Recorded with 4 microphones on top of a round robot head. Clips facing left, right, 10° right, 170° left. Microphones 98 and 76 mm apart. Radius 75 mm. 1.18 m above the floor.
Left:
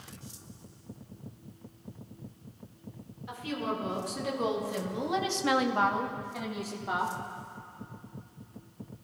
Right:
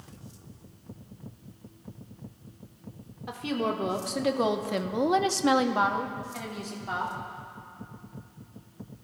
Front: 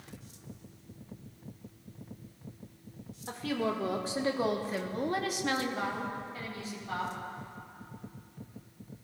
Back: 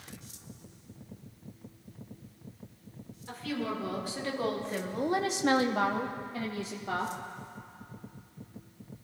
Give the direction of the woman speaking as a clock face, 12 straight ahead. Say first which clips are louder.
Right 5 dB, front 2 dB; 2 o'clock.